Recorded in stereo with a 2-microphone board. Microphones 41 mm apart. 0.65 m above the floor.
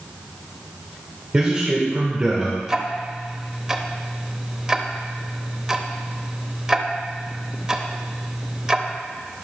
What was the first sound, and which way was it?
A man speaking, 25° right (ahead or behind).